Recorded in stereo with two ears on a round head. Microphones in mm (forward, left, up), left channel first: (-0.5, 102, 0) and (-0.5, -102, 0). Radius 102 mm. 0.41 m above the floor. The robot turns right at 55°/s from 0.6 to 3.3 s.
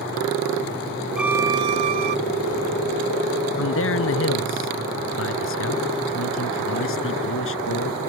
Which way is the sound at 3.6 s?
60° left (ahead or behind).